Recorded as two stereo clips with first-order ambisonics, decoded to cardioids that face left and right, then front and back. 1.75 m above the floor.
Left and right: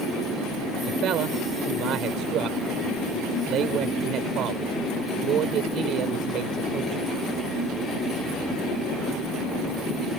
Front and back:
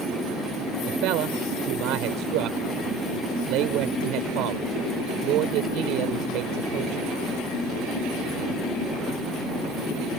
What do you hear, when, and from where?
0.9 s a man speaking: 140° right